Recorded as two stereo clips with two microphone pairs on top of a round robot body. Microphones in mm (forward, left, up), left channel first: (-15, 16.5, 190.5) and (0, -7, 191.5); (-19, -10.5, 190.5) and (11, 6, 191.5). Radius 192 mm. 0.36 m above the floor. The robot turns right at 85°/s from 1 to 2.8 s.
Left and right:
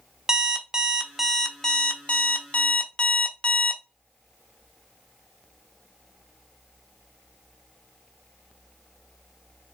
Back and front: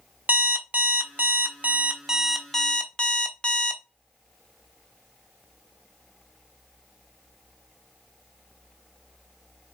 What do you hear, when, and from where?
0.3 s an alarm clock: straight ahead, 0.8 m; by 3.8 s 155° left, 0.8 m